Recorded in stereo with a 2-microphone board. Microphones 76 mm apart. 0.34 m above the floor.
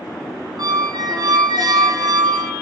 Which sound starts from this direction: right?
A squeak, at 0.6 s.